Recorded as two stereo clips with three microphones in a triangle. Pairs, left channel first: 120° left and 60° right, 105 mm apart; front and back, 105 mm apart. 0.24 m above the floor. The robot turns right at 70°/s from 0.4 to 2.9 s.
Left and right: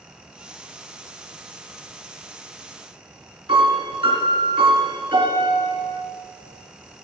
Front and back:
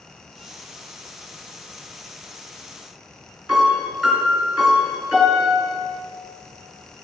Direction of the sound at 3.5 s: 100° right.